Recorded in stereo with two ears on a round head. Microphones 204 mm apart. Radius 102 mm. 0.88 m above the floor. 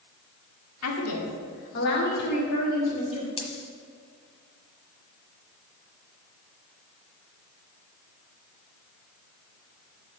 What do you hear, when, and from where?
0.8 s a woman speaking: 80° left, 1.8 m; by 3.3 s 30° left (ahead or behind), 2.5 m
3.4 s a dropped coin: 25° left (ahead or behind), 1.2 m